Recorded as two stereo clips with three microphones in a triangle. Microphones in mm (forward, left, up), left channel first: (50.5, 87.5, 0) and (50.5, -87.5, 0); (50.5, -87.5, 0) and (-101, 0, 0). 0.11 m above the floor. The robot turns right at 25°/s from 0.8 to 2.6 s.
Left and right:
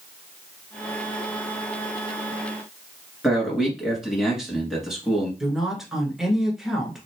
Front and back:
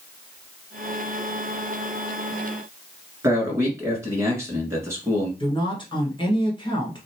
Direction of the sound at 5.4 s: 5° right.